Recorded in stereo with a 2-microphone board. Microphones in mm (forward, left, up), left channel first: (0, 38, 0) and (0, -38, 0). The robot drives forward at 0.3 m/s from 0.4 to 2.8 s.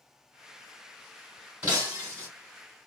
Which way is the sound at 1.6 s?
20° right (ahead or behind).